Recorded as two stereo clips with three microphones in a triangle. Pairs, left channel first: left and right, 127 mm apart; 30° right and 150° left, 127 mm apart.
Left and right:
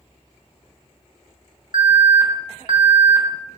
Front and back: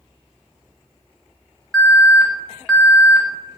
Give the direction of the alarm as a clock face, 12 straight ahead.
4 o'clock.